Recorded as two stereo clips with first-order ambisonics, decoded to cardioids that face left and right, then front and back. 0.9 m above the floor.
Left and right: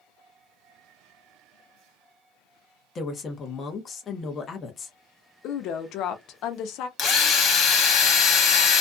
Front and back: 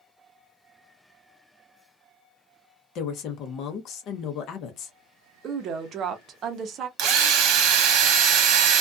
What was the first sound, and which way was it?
A woman speaking, 30° left.